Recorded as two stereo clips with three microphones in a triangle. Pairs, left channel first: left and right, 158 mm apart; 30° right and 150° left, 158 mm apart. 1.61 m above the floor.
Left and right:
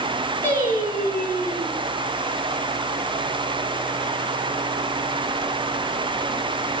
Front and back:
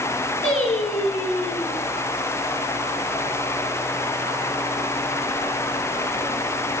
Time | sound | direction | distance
0.4 | singing | 10° left | 9 m